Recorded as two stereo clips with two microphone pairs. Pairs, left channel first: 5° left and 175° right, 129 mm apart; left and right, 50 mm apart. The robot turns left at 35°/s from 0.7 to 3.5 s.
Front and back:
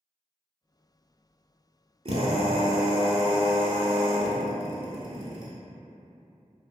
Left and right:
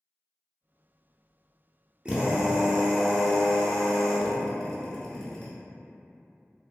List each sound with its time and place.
2.0 s a drill: 150° right, 0.7 m; by 5.5 s 160° left, 0.7 m